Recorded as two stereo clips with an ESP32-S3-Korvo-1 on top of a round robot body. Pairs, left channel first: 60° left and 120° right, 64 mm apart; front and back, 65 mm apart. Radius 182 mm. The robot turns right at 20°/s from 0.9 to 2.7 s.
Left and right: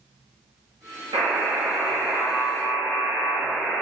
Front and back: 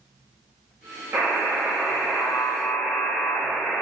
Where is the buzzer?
125° right, 0.6 m; by 3.8 s 90° right, 0.6 m.